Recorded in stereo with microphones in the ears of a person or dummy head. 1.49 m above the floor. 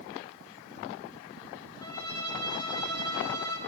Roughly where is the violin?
Centre.